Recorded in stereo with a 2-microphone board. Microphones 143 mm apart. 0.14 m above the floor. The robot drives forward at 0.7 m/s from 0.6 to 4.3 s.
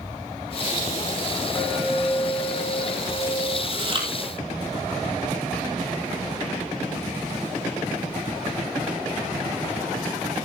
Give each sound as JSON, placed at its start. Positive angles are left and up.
{"t": 1.6, "sound": "a clink", "side_deg": 25, "distance_m": 6.5}
{"t": 3.7, "sound": "chewing", "side_deg": -40, "distance_m": 3.5}